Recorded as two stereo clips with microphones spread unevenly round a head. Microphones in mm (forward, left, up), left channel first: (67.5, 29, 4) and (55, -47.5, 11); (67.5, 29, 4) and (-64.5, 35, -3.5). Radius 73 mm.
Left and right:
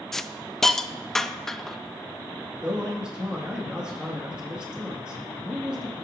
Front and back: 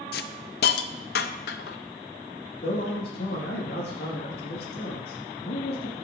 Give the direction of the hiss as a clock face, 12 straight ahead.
12 o'clock.